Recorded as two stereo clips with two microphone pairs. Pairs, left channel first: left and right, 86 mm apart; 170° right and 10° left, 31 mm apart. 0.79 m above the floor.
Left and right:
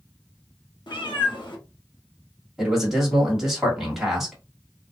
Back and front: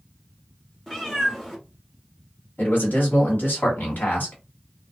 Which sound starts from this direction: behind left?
A cat meowing, at 0.9 s.